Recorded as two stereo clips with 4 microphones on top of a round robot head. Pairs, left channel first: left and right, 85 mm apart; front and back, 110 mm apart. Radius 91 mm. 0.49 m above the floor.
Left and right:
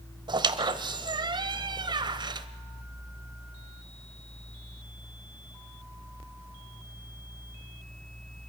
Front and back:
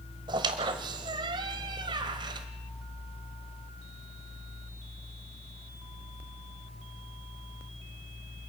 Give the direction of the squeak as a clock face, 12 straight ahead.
4 o'clock.